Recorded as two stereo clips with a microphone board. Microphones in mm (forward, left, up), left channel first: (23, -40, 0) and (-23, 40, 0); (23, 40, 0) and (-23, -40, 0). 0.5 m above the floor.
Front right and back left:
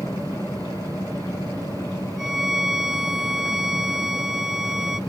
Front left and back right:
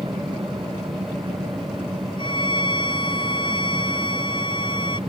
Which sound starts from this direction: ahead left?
A violin, at 2.2 s.